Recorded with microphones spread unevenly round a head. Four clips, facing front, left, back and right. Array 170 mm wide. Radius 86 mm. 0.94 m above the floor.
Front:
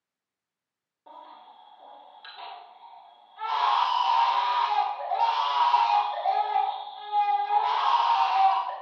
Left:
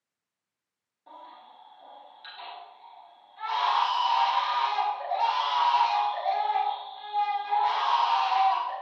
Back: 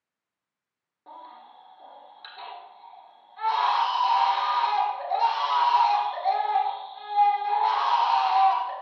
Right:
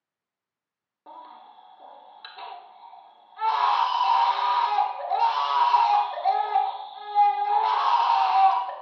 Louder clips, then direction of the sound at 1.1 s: Right 3 dB, back 2 dB; 105° right.